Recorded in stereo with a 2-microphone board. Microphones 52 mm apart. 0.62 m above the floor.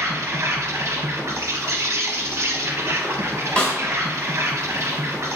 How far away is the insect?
About 0.8 m.